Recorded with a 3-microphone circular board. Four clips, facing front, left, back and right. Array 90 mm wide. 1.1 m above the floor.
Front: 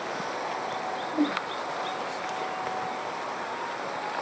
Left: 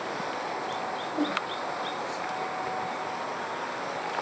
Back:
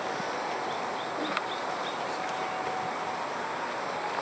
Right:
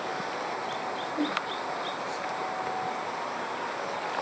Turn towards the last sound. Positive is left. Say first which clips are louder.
# left 1 dB, front 9 dB
turn(degrees=10)